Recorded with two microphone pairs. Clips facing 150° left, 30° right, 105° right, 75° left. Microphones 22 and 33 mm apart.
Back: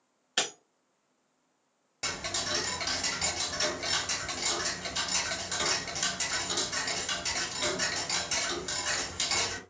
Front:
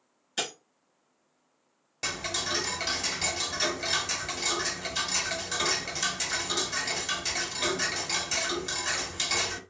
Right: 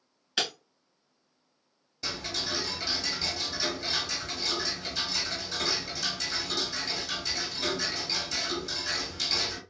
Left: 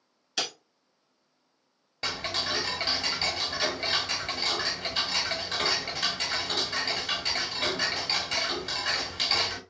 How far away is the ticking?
About 0.8 m.